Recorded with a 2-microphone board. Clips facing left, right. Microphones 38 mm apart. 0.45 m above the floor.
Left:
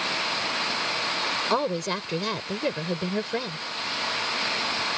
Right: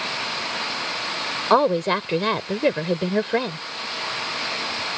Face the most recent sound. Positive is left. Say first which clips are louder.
# right 12 dB
turn(degrees=-35)  # may be behind; listen again after turning